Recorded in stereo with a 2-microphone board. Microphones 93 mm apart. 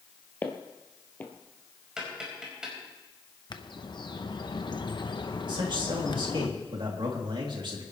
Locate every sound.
0.4 s footsteps: 20° left (ahead or behind), 1.7 m
2.0 s tapping: 5° right (ahead or behind), 5 m
3.5 s a bird: 55° left (ahead or behind), 0.9 m
5.5 s a man speaking: 60° right (ahead or behind), 3 m